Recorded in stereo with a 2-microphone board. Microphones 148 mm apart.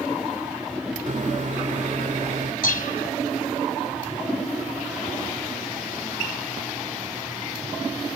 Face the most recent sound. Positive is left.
turn(degrees=75)  # may be behind; listen again after turning